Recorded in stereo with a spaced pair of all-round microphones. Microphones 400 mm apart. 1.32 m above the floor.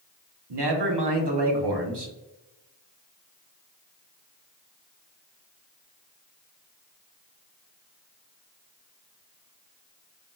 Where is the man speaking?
80° right, 0.9 m.